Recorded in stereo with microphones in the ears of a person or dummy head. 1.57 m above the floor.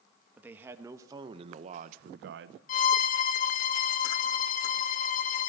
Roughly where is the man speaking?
Centre.